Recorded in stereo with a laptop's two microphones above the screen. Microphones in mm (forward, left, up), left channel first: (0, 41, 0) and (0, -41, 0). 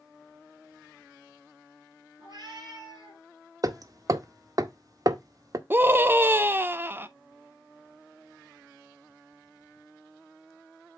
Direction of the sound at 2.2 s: 50° right (ahead or behind).